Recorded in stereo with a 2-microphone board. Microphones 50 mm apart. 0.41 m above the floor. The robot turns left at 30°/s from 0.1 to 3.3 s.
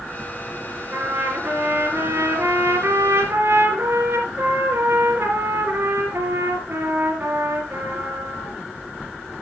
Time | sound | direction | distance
0.9 | a trumpet | 55° right | 4 m